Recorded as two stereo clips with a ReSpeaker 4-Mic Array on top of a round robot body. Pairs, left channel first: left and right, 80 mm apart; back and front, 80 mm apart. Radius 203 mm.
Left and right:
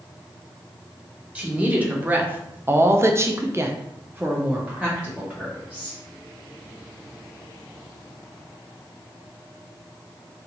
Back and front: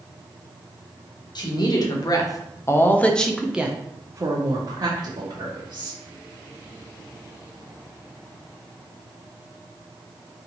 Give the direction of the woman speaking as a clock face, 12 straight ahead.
5 o'clock.